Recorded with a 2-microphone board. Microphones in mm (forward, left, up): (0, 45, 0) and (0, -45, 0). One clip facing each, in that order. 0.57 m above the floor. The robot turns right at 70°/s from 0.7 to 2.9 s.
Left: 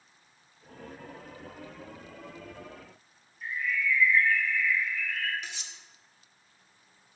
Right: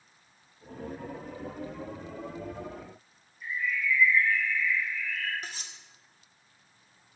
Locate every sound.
3.4 s a bird: 65° left (ahead or behind), 0.9 m
5.4 s cutlery clinking: 40° right (ahead or behind), 0.6 m